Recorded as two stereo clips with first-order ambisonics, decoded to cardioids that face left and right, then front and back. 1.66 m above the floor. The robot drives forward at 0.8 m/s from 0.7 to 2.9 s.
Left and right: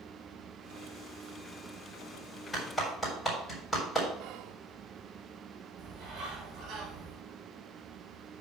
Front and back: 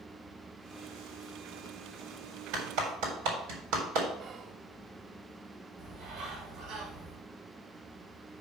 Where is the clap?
165° left, 3.5 m; by 4.1 s 170° left, 3.5 m.